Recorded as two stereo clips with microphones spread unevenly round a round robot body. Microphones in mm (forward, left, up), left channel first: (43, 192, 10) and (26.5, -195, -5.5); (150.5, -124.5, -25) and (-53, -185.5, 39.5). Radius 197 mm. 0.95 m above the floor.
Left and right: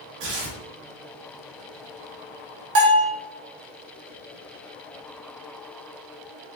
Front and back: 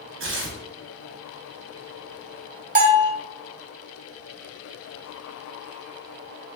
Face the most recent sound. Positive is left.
turn(degrees=-110)